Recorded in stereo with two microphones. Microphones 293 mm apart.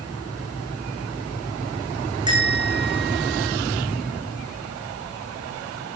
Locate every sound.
2.3 s a bell: 15° right (ahead or behind), 7 m